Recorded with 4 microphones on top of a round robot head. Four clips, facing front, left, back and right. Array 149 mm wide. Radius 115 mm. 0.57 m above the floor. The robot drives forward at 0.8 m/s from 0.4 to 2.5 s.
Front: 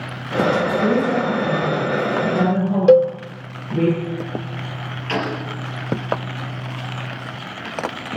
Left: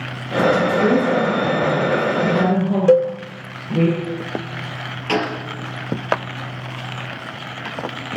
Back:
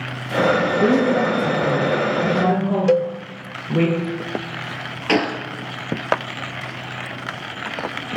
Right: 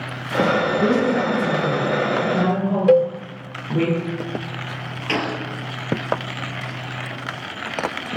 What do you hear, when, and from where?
0.8 s a woman speaking: 165° right, 7 m; by 3.9 s 170° right, 8.5 m
2.9 s a cowbell: 15° left, 0.8 m
5.1 s a gunshot: 175° left, 3 m